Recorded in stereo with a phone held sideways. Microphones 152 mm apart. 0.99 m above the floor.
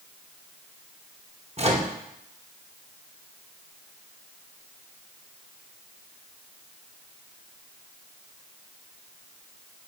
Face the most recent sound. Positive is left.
turn(degrees=-45)  # may be behind; listen again after turning